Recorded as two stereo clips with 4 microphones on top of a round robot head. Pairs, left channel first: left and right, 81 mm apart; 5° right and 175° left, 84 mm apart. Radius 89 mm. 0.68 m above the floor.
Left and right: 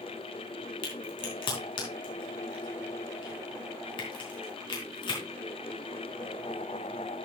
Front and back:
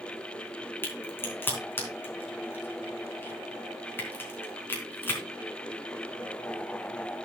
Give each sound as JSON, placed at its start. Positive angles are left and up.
{"t": 0.8, "sound": "a crack", "azimuth_deg": 60, "distance_m": 4.0}